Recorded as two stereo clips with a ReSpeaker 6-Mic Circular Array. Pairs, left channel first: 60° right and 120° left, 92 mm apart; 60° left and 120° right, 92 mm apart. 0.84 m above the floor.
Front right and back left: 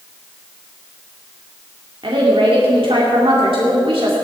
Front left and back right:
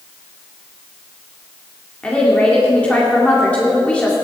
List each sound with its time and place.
2.0 s a woman speaking: 135° left, 2 m